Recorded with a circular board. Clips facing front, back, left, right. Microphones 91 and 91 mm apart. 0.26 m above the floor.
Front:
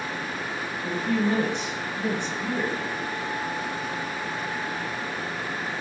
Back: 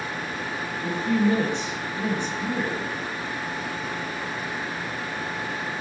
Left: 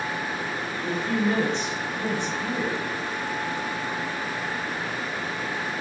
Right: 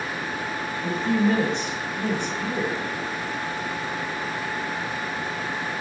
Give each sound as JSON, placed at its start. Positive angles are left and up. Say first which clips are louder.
{"t": 0.8, "sound": "a woman speaking", "louder": "back 3 dB, right 3 dB", "azimuth_deg": -60, "distance_m": 1.5}